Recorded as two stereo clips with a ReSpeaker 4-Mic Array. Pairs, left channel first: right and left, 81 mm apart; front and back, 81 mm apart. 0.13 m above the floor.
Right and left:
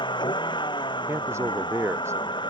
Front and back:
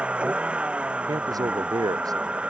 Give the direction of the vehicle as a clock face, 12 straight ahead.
3 o'clock.